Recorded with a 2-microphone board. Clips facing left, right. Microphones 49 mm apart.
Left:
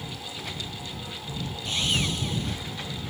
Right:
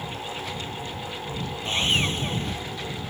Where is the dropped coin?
I don't hear a dropped coin.